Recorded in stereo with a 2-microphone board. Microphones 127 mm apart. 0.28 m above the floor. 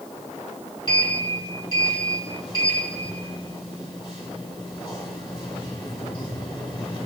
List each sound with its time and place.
0.9 s a sliding door: 35° left (ahead or behind), 1.9 m